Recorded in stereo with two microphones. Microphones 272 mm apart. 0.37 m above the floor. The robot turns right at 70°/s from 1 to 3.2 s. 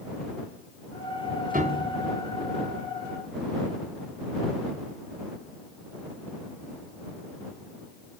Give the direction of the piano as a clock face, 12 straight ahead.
1 o'clock.